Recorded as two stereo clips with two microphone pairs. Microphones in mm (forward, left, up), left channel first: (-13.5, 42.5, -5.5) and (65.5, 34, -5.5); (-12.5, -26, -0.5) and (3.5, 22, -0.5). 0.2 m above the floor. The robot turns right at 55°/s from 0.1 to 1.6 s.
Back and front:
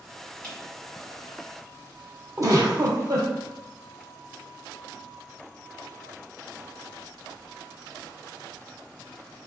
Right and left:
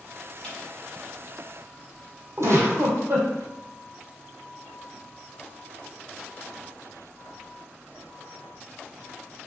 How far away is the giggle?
About 1.2 m.